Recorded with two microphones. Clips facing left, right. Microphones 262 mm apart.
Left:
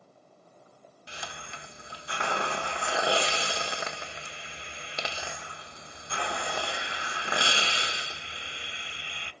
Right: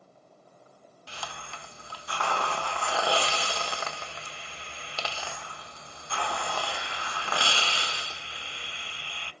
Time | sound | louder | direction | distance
1.1 | a hiss | right 1 dB | 20° left (ahead or behind) | 0.9 m